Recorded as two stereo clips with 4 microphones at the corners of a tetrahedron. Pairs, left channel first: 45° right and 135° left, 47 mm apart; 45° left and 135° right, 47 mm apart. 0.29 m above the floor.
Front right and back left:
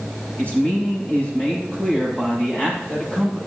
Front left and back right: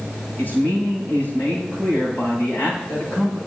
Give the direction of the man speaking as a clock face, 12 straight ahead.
12 o'clock.